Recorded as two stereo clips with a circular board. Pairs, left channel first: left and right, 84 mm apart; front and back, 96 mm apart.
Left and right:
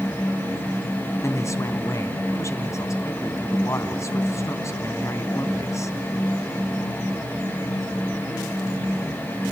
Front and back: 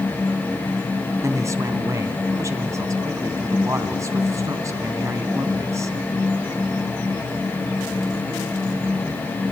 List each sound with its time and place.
1.2 s a man speaking: 130° left, 2 m